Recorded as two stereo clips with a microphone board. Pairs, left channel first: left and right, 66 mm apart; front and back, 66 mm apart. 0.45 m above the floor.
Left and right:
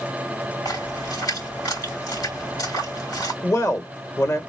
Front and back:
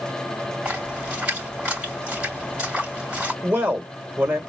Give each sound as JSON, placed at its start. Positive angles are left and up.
{"t": 0.7, "sound": "a splash", "azimuth_deg": 105, "distance_m": 3.0}
{"t": 3.4, "sound": "a man speaking", "azimuth_deg": 120, "distance_m": 1.3}